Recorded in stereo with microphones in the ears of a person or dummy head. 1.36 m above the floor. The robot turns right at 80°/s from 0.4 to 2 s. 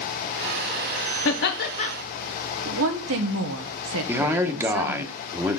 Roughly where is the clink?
No clink in this recording.